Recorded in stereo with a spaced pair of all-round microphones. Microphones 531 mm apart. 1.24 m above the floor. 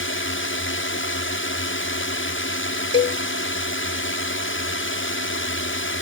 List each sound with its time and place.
0.0 s a drone: 20° left (ahead or behind)
2.9 s a cowbell: 75° right (ahead or behind)